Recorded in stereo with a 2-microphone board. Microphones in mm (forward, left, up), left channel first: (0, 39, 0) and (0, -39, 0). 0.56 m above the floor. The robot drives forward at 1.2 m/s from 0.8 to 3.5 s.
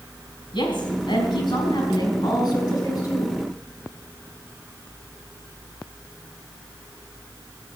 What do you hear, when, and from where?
0.5 s a woman speaking: 75° left (ahead or behind), 4.5 m; by 3.3 s 50° left (ahead or behind), 6 m